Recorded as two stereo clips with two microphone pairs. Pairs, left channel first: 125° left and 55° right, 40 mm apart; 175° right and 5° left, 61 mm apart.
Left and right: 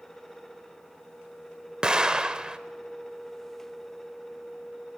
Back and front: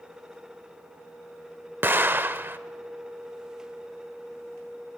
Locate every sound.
1.8 s an explosion: straight ahead, 0.6 m